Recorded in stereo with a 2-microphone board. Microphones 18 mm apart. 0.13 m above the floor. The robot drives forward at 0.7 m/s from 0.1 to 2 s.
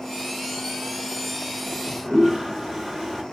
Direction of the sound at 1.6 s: Centre (ahead or behind).